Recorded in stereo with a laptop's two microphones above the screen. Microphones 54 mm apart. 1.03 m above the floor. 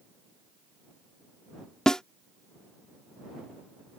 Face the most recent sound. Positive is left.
turn(degrees=10)  # may be behind; listen again after turning